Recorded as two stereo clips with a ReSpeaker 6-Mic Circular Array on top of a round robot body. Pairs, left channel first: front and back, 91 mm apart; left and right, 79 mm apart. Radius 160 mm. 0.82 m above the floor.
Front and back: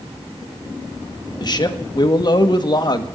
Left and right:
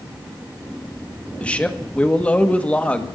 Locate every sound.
1.4 s a man speaking: 20° left, 1.6 m